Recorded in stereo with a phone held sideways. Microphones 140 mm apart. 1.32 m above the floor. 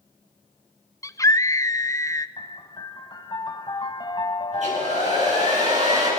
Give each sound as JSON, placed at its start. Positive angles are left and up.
{"t": 1.0, "sound": "a scream", "side_deg": 25, "distance_m": 0.9}
{"t": 2.4, "sound": "a piano", "side_deg": 35, "distance_m": 1.5}
{"t": 4.5, "sound": "a hair dryer", "side_deg": -60, "distance_m": 9.5}